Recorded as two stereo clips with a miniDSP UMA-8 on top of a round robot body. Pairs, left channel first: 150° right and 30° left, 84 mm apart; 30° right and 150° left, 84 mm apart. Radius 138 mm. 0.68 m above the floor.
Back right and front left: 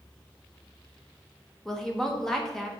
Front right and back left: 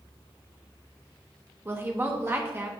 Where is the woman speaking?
130° left, 1.1 m.